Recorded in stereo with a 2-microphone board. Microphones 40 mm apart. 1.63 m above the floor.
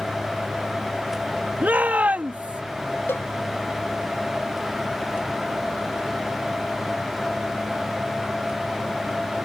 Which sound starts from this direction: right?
A shout, at 1.6 s.